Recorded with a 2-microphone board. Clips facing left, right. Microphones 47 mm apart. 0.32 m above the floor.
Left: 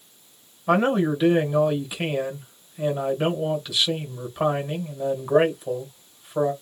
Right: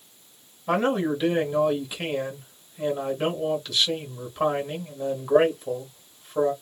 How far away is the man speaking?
About 1.4 m.